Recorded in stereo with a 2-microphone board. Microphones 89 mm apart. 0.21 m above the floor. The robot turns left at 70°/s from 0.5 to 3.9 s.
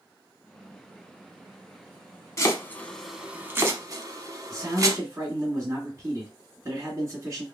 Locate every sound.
2.4 s chopping: 35° left (ahead or behind), 0.7 m; by 5.0 s 40° right (ahead or behind), 0.7 m
4.5 s a man speaking: 35° right (ahead or behind), 2 m